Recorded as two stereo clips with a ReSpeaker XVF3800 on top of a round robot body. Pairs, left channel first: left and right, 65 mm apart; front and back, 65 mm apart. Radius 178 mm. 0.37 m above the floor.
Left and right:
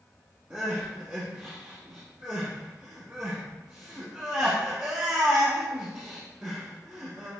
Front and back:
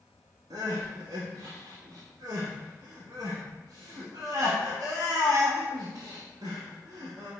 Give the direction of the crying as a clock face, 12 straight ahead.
5 o'clock.